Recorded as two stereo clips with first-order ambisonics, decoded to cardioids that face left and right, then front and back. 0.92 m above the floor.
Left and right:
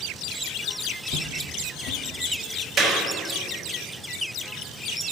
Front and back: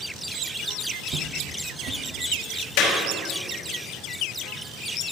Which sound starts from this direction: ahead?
A clap, at 2.8 s.